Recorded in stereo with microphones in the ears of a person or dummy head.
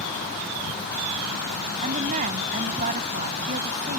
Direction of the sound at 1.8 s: 40° right (ahead or behind).